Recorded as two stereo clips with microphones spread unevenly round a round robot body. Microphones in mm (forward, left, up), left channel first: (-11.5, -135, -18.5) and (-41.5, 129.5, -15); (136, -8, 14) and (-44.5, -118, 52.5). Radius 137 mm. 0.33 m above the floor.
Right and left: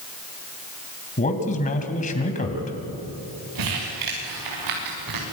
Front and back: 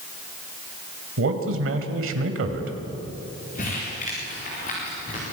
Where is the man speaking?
140° right, 2.5 m.